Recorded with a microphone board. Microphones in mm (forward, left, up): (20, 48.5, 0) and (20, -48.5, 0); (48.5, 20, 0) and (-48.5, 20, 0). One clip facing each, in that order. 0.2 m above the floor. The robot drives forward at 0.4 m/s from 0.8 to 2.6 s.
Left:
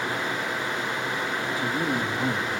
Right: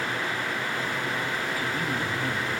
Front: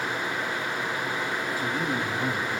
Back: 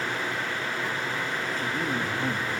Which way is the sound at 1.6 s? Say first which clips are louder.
Left 3 dB, front 1 dB; 65° left.